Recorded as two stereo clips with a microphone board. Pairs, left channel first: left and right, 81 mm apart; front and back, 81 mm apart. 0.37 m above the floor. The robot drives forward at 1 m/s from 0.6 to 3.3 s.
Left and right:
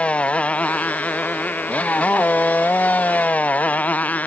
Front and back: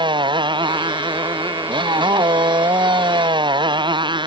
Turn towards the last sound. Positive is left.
turn(degrees=160)